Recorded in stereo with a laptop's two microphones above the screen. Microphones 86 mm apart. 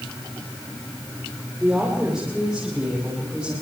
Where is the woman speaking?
10° right (ahead or behind), 3 m; by 3.5 s 5° right (ahead or behind), 5.5 m.